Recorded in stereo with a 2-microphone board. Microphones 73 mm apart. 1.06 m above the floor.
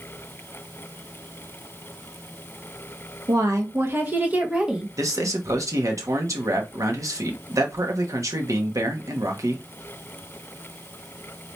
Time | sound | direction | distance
3.3 | a woman speaking | 50° right (ahead or behind) | 1.2 m
5.0 | a man speaking | 45° right (ahead or behind) | 1.1 m